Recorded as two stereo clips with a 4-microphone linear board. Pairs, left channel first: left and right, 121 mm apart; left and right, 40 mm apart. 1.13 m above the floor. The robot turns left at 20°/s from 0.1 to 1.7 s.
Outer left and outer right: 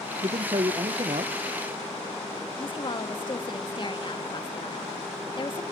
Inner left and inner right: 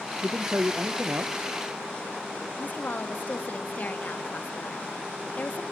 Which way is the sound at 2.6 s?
40° left (ahead or behind).